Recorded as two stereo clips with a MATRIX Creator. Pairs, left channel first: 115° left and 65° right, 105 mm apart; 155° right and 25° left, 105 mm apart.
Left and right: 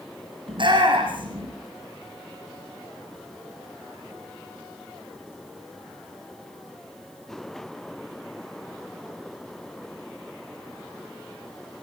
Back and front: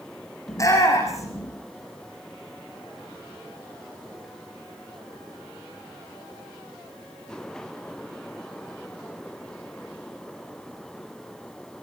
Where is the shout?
100° right, 6 m.